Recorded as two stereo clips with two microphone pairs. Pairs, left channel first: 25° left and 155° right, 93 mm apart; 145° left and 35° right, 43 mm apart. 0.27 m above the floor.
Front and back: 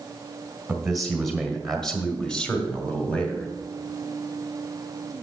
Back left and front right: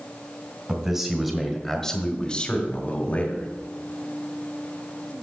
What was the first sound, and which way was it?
A man speaking, 75° right.